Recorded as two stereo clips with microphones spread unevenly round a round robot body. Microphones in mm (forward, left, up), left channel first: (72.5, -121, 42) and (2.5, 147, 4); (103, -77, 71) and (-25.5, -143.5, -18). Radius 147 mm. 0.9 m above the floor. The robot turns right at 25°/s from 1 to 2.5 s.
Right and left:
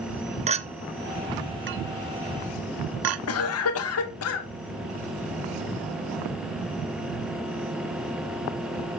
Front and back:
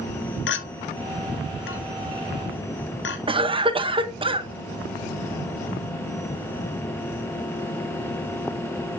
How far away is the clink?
About 0.9 m.